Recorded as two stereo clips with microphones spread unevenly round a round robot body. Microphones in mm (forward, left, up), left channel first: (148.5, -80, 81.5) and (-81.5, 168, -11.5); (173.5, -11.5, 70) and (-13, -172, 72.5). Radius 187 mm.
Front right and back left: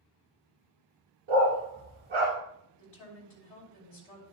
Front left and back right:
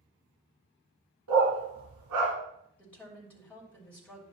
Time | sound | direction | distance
1.3 | a dog barking | 155° right | 1.9 m
2.8 | a woman speaking | 45° right | 3 m